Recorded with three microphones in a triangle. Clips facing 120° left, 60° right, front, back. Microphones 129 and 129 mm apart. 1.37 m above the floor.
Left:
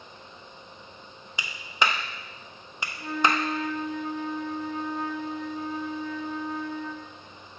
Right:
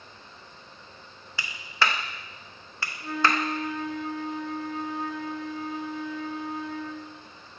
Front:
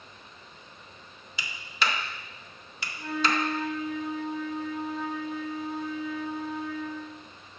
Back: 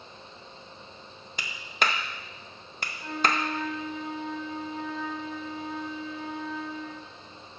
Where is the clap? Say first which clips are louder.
Even, back 2 dB; 170° right, 0.6 m.